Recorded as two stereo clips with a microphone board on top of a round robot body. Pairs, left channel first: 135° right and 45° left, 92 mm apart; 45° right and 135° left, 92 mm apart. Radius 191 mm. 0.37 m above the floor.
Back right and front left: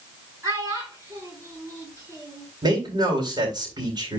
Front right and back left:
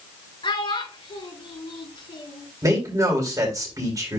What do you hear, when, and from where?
0.4 s a child speaking: 10° right, 5 m
2.6 s a man speaking: 85° left, 4 m